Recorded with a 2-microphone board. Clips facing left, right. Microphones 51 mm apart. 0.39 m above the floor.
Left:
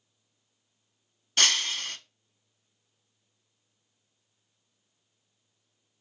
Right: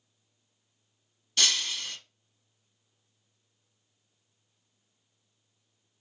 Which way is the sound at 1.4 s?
50° left (ahead or behind).